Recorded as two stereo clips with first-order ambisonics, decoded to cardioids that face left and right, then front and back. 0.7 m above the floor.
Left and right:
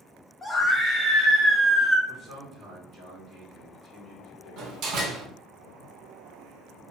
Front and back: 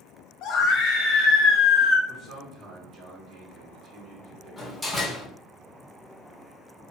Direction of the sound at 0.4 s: 10° left.